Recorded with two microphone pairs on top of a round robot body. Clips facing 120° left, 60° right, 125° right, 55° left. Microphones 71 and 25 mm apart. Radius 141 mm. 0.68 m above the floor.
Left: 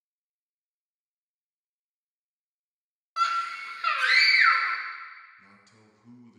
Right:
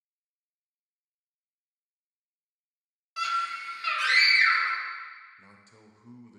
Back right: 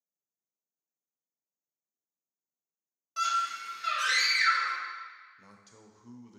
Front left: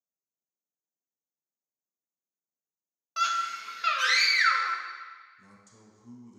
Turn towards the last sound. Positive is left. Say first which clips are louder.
# right 2 dB, back right 1 dB
turn(degrees=-90)